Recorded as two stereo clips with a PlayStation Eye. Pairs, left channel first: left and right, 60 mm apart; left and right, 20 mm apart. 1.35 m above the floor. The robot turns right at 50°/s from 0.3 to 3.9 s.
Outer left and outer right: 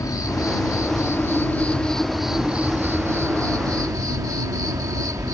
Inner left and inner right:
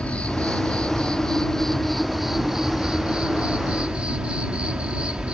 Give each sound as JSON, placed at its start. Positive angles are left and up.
{"t": 0.0, "sound": "an insect", "azimuth_deg": 90}